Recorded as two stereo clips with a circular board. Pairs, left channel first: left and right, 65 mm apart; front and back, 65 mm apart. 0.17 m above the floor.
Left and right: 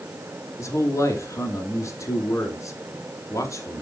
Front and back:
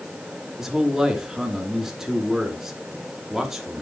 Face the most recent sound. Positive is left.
turn(degrees=95)